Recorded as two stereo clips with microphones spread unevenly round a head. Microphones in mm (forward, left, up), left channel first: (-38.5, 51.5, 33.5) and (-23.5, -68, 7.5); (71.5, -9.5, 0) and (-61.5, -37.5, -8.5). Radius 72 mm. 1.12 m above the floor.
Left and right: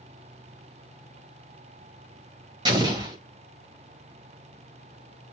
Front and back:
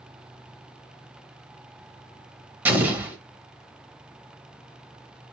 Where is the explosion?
110° right, 0.9 m.